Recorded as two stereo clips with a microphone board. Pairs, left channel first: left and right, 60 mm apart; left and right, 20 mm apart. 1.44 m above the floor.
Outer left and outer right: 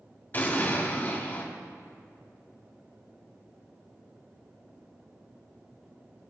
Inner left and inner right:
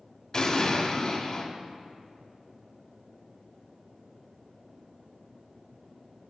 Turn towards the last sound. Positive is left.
turn(degrees=35)  # may be behind; listen again after turning